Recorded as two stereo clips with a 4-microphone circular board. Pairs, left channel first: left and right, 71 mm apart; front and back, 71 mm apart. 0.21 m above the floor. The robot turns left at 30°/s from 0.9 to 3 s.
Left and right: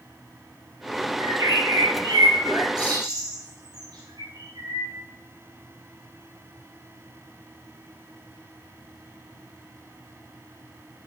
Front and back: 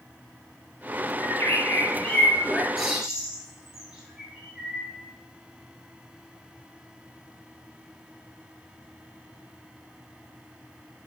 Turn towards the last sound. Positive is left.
turn(degrees=-100)